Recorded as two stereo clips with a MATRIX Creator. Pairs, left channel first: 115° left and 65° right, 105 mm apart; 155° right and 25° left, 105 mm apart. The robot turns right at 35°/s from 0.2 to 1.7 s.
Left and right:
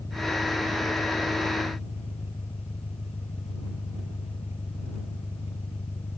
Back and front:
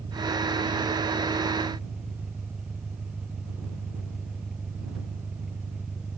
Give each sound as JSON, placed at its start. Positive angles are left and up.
{"t": 0.0, "sound": "an engine running", "azimuth_deg": 55}